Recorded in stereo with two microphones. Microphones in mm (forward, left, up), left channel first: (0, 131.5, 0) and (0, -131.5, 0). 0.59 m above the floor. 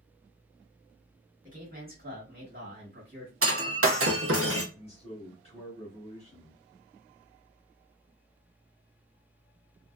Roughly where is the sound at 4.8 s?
Left.